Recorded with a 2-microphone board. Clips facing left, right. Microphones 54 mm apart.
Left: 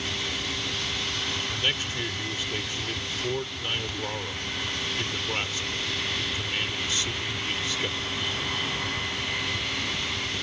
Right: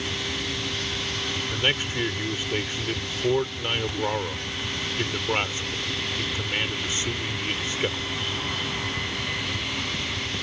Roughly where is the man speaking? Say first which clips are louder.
Right 6 dB; right.